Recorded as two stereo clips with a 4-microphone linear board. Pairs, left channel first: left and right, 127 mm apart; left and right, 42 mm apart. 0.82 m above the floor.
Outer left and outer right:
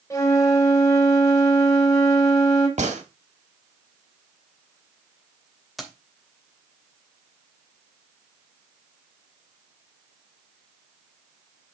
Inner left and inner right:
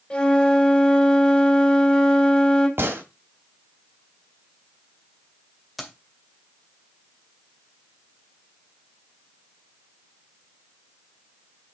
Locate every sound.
0.1 s a flute: 20° left (ahead or behind), 3 m
2.8 s a gunshot: 65° right (ahead or behind), 1.9 m
5.8 s keys jangling: centre (ahead or behind), 2 m